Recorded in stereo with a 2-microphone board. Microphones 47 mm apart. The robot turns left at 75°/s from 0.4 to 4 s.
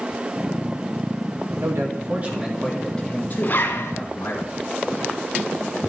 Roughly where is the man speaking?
Right.